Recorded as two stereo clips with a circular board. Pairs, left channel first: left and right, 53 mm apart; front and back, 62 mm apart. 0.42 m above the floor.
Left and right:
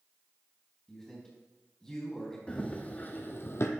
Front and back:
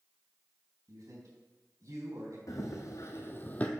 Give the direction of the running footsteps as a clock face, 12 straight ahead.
11 o'clock.